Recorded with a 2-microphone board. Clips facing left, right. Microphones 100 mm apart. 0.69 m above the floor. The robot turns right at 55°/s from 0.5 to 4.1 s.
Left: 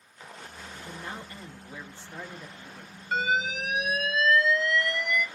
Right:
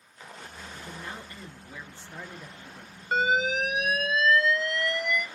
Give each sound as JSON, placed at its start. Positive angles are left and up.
{"t": 0.7, "sound": "a man speaking", "side_deg": 30, "distance_m": 0.9}
{"t": 3.1, "sound": "an alarm", "azimuth_deg": -115, "distance_m": 1.1}